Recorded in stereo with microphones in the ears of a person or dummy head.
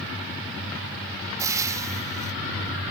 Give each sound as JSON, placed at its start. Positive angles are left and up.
{"t": 1.4, "sound": "frying", "side_deg": -20}